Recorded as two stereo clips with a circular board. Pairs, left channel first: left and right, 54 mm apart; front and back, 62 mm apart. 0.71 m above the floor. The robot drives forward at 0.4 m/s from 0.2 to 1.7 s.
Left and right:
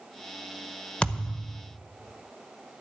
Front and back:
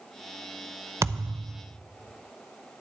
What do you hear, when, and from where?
1.0 s a thud: 155° left, 0.5 m; by 1.6 s 165° left, 0.7 m